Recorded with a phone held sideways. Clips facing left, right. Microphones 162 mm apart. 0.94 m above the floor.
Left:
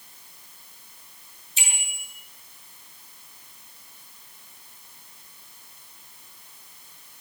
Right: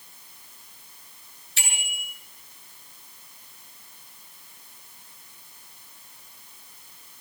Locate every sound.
1.6 s a bicycle bell: 75° right (ahead or behind), 8.5 m